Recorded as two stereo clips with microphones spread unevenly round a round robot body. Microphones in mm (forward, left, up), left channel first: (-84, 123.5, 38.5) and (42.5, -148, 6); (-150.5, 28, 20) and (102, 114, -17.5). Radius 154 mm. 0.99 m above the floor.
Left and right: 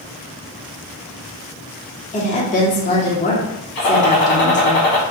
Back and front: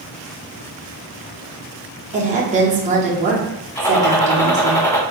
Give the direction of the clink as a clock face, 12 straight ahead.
I don't hear a clink.